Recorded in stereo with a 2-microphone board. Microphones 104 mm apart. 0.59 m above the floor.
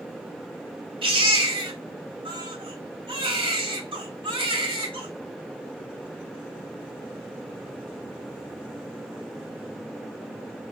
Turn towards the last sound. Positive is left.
turn(degrees=-55)  # may be behind; listen again after turning